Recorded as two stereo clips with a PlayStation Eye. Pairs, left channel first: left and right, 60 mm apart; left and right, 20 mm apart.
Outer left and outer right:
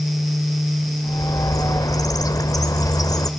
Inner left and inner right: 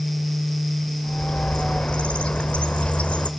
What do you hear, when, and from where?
1.0 s a bird: 80° left, 0.6 m